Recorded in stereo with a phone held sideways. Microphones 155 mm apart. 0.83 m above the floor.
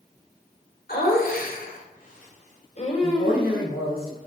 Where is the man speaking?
75° left (ahead or behind), 4.5 m.